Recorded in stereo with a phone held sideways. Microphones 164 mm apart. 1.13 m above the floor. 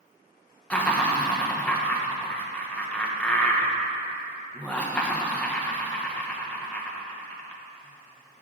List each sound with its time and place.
0.7 s laughter: 10° left (ahead or behind), 0.9 m